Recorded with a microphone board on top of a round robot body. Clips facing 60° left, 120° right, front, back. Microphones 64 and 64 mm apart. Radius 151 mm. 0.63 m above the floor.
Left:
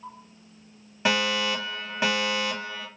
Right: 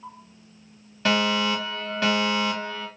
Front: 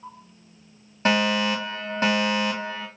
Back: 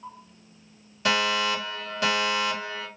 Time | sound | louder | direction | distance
1.1 | a fire alarm | right 3 dB, front 3 dB | straight ahead | 1.6 m